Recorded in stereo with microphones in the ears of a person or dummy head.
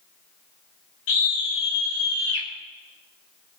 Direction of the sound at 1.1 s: 85° left.